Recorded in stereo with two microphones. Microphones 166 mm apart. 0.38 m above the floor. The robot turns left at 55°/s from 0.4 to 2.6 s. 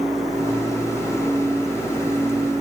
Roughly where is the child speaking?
No child speaking in this recording.